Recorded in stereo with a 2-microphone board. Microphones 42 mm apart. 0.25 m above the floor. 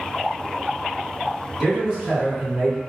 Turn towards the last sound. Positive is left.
turn(degrees=-30)  # may be behind; listen again after turning